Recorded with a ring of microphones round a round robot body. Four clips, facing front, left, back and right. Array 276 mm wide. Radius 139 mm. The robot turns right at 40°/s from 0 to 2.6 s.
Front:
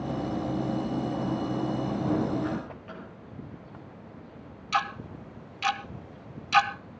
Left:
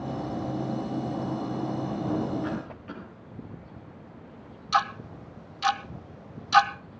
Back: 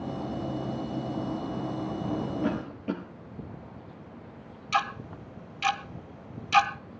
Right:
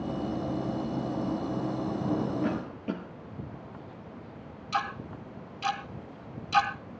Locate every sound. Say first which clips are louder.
2.4 s a cough: right 2 dB, back 3 dB; 140° right, 8.5 m; by 3.0 s 135° right, 8.5 m
4.7 s ticking: left 6 dB, even; 120° left, 1.3 m